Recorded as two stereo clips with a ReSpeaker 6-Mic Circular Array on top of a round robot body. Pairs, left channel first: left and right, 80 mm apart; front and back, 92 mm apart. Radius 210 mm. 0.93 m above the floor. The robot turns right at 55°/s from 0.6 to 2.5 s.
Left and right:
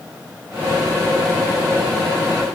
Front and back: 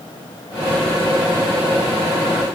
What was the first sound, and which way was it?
Only background noise.